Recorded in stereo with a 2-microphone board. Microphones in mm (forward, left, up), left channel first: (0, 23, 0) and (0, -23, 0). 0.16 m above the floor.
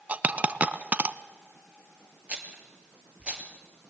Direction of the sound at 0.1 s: 35° right (ahead or behind).